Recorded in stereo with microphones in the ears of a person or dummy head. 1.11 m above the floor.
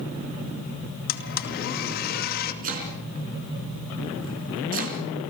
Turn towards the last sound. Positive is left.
turn(degrees=-45)  # may be behind; listen again after turning